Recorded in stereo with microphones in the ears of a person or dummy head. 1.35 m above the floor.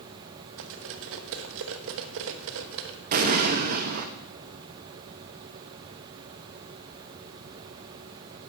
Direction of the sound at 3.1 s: 40° right (ahead or behind).